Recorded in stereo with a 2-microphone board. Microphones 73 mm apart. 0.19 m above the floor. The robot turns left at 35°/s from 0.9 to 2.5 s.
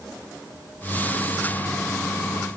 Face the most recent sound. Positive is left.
No sound to turn to.